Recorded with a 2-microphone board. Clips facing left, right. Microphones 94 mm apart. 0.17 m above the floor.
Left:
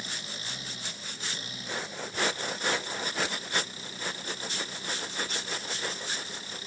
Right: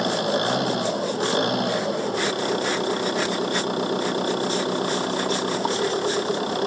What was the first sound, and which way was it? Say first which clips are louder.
An engine running: right 20 dB; 70° right (ahead or behind).